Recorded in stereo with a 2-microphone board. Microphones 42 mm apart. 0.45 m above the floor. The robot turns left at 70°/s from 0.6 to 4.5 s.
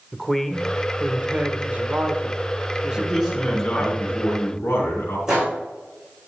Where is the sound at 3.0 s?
165° right, 3.5 m; by 5.2 s 85° left, 3.5 m.